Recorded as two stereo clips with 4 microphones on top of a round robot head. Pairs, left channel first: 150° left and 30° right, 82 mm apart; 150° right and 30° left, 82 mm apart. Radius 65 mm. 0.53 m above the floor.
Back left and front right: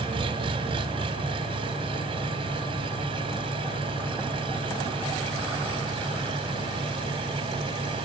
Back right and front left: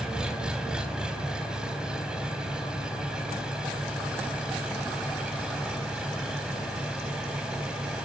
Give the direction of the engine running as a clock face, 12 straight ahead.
2 o'clock.